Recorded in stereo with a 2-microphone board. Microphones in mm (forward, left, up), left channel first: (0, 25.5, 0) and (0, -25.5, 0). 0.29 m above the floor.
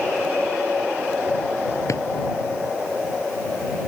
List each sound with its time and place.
1.9 s a drawer: 75° left (ahead or behind)